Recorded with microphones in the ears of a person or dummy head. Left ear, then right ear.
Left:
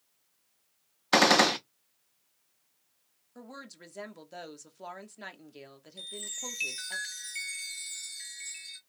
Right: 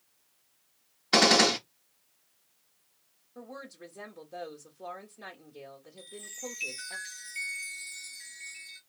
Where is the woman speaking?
55° left (ahead or behind), 1.2 m.